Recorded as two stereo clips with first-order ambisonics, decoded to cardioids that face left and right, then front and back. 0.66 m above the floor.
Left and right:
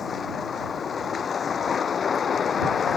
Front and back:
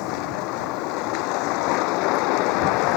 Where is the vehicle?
25° left.